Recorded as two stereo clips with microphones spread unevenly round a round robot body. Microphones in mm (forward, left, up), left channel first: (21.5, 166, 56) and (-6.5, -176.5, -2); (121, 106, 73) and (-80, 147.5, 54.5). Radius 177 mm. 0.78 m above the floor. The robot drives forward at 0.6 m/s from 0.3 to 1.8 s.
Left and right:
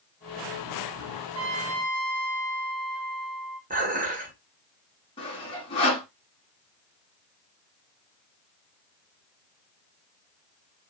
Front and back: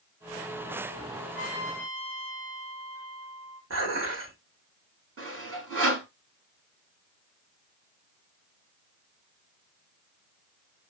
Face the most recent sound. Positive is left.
turn(degrees=160)